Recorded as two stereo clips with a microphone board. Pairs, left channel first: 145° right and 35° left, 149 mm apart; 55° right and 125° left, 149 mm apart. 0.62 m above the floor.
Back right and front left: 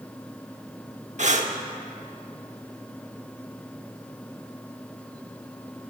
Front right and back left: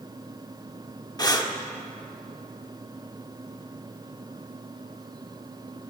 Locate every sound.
1.2 s breathing: 5° left, 1.0 m